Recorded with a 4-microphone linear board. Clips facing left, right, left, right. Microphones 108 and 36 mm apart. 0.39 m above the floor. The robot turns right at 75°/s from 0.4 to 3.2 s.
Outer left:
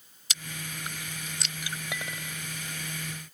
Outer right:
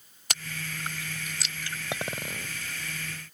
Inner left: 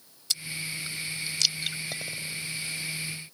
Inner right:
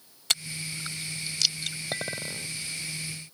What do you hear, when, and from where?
0.3 s chewing: 65° right (ahead or behind); by 1.8 s 20° left (ahead or behind)
1.9 s a clink: 145° right; by 2.5 s 100° right